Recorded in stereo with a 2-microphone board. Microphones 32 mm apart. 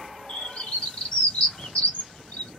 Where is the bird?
45° left (ahead or behind), 1.3 m.